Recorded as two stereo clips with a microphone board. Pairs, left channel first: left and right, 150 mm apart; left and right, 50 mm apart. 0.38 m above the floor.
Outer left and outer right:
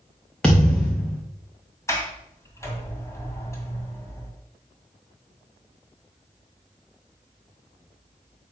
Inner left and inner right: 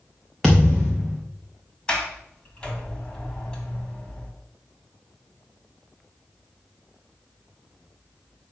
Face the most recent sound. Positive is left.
turn(degrees=20)  # may be behind; listen again after turning